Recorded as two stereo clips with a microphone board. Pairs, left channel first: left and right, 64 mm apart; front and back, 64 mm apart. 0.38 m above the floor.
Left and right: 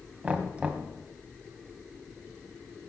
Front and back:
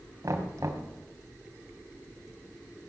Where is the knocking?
155° right, 1.7 m.